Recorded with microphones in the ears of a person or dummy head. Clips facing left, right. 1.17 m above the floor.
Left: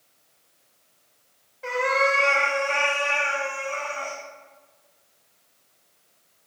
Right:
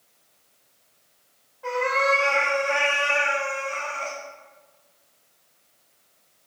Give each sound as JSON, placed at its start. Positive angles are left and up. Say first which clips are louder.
{"t": 1.6, "sound": "a cat meowing", "louder": "even", "side_deg": 25, "distance_m": 0.8}